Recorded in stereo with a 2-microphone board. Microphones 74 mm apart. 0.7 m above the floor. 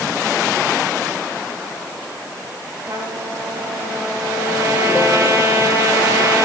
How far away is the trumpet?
About 9.5 m.